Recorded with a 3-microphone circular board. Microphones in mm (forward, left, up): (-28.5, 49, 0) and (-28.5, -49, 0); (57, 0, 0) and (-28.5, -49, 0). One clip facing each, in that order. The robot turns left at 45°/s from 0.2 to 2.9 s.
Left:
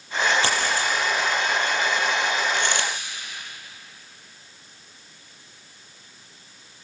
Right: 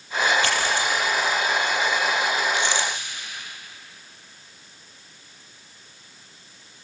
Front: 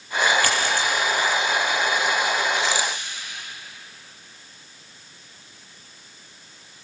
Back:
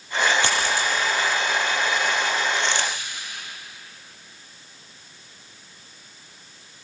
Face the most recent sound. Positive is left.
turn(degrees=105)